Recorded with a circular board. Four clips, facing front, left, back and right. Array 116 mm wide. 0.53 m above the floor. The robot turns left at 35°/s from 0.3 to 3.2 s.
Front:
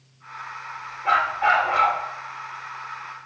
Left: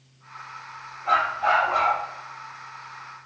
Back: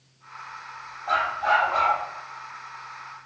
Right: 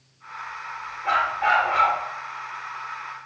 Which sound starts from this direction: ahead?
A dog barking, at 1.1 s.